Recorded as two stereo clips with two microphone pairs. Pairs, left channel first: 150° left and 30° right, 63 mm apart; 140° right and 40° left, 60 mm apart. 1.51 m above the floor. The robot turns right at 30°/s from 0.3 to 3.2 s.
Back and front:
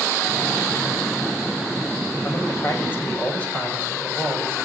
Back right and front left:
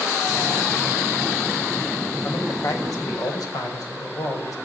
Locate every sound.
2.2 s a man speaking: 175° right, 6.5 m; by 4.5 s 145° right, 6.5 m